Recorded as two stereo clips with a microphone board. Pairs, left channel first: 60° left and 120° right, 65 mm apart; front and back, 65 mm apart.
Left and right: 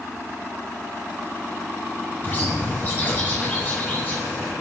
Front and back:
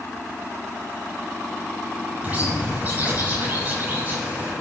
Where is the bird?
120° left, 6 m.